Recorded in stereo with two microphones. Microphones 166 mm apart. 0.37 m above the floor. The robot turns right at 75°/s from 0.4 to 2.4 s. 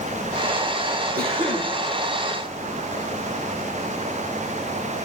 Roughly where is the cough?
Right.